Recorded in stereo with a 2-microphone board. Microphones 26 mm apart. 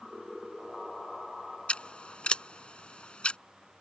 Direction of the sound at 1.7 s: 50° left (ahead or behind).